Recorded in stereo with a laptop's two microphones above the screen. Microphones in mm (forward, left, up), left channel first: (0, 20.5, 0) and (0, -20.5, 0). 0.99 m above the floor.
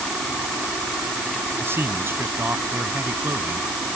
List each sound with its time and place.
1.6 s a man speaking: 70° right (ahead or behind); by 3.7 s 75° right (ahead or behind)